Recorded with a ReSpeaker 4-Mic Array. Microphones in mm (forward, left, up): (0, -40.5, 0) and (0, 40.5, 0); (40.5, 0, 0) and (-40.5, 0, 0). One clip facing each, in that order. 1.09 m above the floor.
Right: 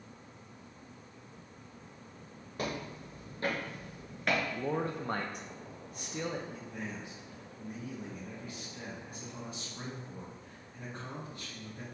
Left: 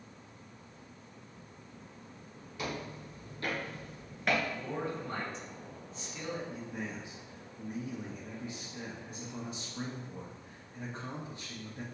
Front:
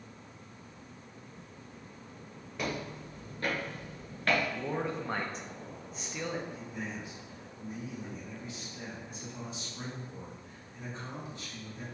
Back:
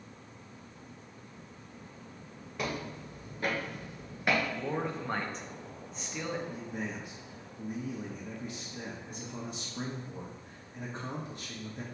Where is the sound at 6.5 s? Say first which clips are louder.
Left 2 dB, back 2 dB; 160° left, 0.9 m.